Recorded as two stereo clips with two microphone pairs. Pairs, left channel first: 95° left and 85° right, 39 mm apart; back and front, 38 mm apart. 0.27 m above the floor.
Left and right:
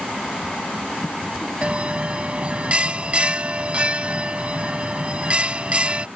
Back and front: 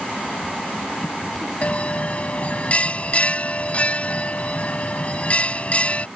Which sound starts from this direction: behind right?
A bell, at 1.6 s.